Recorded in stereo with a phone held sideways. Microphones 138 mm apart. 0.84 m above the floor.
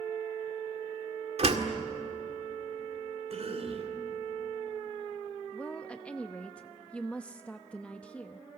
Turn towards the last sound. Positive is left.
turn(degrees=10)  # may be behind; listen again after turning